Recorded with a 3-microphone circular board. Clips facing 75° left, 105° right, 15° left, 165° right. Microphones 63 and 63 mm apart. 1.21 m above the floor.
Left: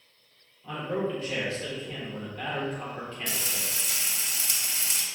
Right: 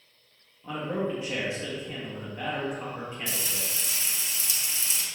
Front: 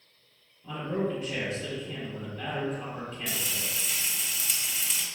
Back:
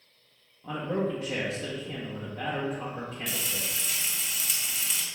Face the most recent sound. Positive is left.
turn(degrees=105)